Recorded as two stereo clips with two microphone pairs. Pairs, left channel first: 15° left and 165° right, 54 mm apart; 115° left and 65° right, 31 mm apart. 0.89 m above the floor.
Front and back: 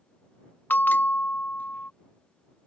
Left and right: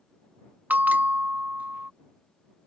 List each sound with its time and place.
0.7 s a bell: 40° right